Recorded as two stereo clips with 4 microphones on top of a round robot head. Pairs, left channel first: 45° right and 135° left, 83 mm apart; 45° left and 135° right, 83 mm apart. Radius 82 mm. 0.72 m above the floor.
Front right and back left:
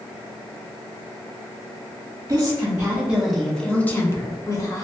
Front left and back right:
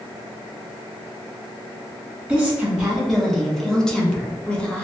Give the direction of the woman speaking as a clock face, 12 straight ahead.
7 o'clock.